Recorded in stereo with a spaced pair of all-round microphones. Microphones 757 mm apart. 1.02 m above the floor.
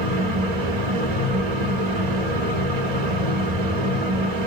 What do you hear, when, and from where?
0.0 s a fan: 60° right (ahead or behind), 0.9 m